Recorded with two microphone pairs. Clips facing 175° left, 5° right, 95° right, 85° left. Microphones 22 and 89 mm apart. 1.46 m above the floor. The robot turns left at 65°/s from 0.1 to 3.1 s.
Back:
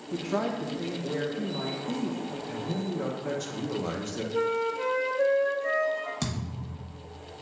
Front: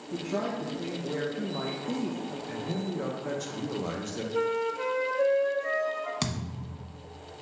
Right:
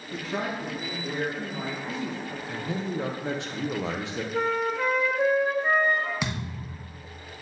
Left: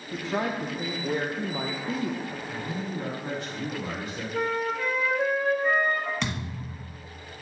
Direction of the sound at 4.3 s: 70° right.